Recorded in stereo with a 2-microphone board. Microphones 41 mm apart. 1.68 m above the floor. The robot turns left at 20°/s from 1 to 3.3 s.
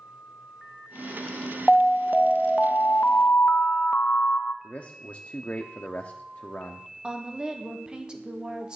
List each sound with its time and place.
1.7 s an alarm: 170° left, 0.5 m; by 4.5 s 135° left, 0.5 m
4.6 s a man speaking: 40° left (ahead or behind), 0.7 m
7.0 s a woman speaking: 25° right (ahead or behind), 1.4 m